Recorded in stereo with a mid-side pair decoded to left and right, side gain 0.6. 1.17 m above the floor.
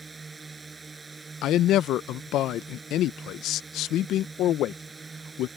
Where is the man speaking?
60° left.